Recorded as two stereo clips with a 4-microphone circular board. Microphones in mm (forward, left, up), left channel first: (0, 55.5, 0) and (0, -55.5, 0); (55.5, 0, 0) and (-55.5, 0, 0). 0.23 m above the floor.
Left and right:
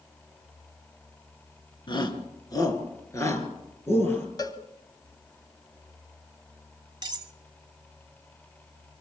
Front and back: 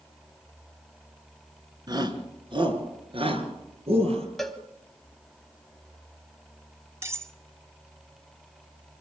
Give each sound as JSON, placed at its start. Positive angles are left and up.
{"t": 1.9, "sound": "a shout", "azimuth_deg": 130, "distance_m": 3.0}
{"t": 4.4, "sound": "a cowbell", "azimuth_deg": 90, "distance_m": 1.6}
{"t": 7.0, "sound": "cutlery clinking", "azimuth_deg": -125, "distance_m": 1.1}